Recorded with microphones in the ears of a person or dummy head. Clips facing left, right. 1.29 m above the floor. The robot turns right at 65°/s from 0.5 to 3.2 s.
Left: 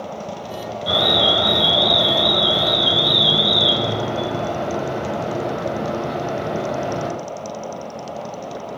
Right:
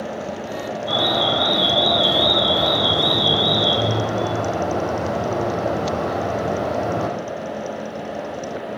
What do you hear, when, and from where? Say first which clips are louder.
0.9 s an alarm: left 2 dB; 105° left, 9 m; by 7.1 s 105° right, 9 m